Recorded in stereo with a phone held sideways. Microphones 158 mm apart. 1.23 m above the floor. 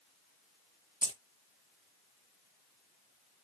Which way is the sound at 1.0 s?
25° right (ahead or behind).